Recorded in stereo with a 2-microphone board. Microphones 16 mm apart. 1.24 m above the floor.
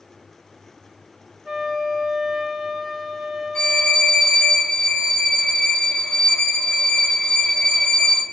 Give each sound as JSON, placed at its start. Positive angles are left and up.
{"t": 1.4, "sound": "a flute", "side_deg": -20, "distance_m": 0.8}
{"t": 3.5, "sound": "a violin", "side_deg": 90, "distance_m": 0.6}